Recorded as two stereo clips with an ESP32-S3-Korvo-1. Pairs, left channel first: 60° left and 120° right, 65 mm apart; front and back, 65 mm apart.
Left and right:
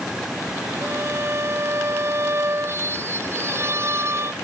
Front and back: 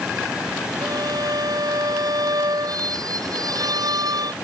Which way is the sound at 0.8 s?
170° right.